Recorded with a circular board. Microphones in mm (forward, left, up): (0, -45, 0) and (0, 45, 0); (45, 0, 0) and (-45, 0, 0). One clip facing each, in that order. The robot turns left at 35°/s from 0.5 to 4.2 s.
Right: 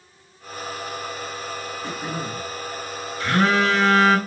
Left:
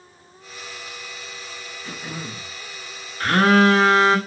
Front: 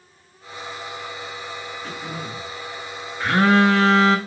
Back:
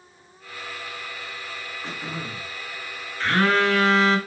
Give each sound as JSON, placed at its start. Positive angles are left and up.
{"t": 1.8, "sound": "throat clearing", "azimuth_deg": -110, "distance_m": 1.3}
{"t": 3.2, "sound": "a phone buzzing", "azimuth_deg": 75, "distance_m": 0.8}